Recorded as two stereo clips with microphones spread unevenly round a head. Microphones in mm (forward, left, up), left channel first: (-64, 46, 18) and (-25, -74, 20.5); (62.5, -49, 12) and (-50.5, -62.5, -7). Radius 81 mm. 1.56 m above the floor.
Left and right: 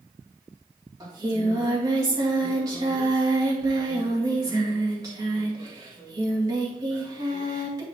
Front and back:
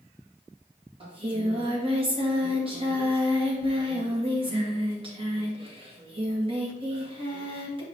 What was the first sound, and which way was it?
Singing, 135° right.